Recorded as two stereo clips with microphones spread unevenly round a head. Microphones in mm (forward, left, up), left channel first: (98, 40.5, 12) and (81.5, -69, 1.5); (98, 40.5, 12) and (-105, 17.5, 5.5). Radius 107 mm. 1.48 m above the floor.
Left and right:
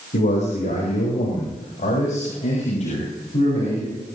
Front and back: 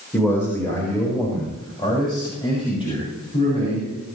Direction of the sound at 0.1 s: 90° left.